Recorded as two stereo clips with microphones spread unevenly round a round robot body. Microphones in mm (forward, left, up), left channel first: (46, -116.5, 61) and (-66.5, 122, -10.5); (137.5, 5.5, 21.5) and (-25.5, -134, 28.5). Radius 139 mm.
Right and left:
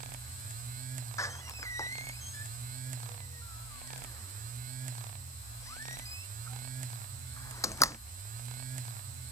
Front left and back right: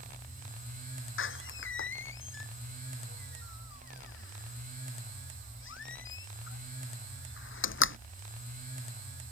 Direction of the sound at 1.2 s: 15° left.